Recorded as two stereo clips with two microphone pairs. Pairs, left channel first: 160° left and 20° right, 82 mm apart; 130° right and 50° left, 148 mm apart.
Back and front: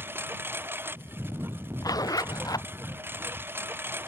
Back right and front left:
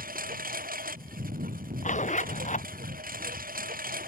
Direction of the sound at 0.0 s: 40° left.